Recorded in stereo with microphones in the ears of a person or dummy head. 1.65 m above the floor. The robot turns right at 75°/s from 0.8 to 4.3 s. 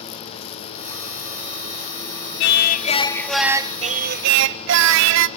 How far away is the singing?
About 0.8 m.